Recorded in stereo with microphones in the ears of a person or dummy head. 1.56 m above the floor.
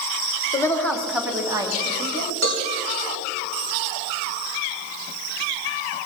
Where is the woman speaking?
15° left (ahead or behind), 1.1 m; by 2.3 s 35° right (ahead or behind), 2 m.